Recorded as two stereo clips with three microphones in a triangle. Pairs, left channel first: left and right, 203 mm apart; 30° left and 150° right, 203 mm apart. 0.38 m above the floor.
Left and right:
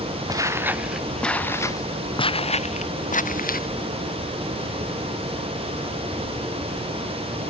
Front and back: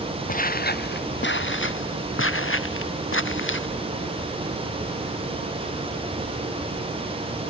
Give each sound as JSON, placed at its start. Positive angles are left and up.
{"t": 0.3, "sound": "footsteps", "azimuth_deg": -20}